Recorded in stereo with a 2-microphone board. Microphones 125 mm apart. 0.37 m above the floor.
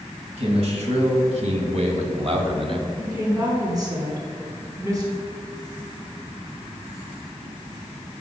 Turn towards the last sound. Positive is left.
turn(degrees=-30)  # may be behind; listen again after turning